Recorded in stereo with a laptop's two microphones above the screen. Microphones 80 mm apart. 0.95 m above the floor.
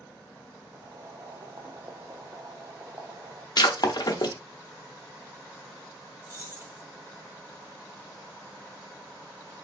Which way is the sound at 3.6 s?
55° left (ahead or behind).